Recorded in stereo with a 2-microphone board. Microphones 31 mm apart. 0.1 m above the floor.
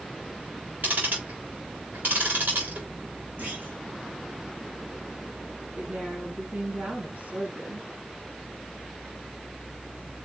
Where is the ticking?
80° right, 4 m.